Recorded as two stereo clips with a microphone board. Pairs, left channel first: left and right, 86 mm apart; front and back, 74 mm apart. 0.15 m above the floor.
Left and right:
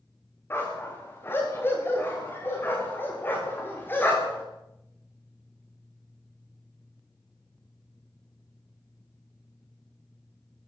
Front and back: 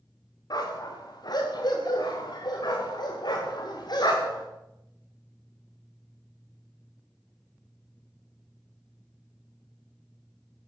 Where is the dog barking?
25° left, 7 m.